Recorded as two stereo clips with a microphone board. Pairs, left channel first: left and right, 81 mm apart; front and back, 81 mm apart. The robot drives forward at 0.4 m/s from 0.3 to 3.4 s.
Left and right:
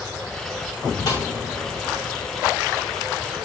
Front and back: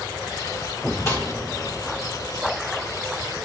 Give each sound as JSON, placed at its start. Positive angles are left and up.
{"t": 1.1, "sound": "a snare drum", "azimuth_deg": 55, "distance_m": 3.5}